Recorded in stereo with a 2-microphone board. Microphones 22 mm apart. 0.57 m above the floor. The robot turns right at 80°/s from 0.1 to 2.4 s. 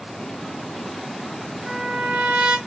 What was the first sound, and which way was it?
A trumpet, 155° right.